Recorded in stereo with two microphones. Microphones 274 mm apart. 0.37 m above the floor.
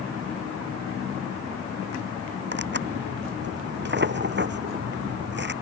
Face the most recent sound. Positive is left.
turn(degrees=-40)  # may be behind; listen again after turning